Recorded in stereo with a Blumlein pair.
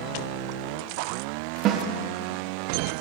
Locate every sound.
1.6 s a snare drum: 35° right, 0.7 m